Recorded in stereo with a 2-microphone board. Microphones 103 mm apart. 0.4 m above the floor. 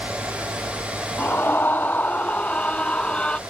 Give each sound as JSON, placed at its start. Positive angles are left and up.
{"t": 1.2, "sound": "a scream", "side_deg": 20}